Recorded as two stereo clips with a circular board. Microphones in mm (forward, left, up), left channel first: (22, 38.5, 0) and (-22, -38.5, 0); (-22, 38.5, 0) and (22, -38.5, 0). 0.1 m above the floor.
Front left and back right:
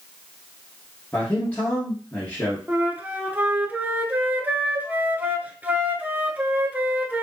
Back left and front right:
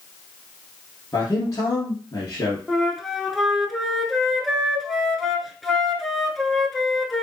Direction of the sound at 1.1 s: 115° left.